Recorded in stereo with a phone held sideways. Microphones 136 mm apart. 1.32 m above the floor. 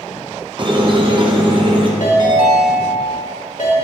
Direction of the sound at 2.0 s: 75° left (ahead or behind).